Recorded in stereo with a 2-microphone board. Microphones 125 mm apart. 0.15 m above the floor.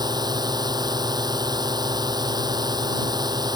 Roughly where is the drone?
Right.